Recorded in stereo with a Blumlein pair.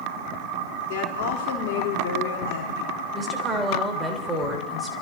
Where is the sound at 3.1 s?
15° right, 2.5 m.